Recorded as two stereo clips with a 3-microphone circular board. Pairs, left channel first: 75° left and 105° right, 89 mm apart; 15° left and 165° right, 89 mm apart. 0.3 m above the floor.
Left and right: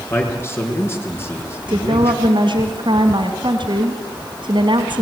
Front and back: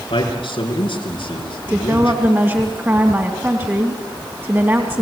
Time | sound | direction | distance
0.1 | a man speaking | 15° left | 5.5 m
1.7 | a woman speaking | 105° right | 2.5 m